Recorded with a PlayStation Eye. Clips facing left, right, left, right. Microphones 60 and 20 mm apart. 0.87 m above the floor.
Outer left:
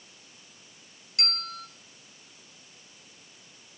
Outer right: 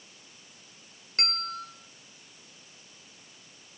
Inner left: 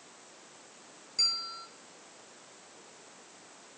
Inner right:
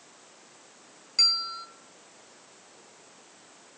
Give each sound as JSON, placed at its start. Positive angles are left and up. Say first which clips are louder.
{"t": 1.2, "sound": "a bell", "louder": "outer right 2 dB, inner right 6 dB", "side_deg": -45, "distance_m": 0.7}